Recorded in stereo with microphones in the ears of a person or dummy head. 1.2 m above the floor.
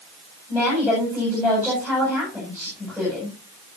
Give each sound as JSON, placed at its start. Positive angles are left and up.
{"t": 0.5, "sound": "a woman speaking", "side_deg": -5, "distance_m": 9.0}